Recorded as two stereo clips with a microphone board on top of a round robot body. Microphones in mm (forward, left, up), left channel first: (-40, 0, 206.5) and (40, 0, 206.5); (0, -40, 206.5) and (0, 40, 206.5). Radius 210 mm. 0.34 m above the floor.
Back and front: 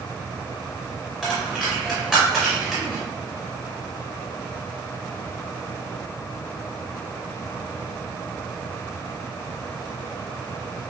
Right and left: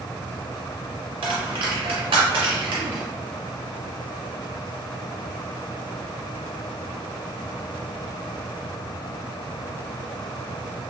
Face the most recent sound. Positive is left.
turn(degrees=85)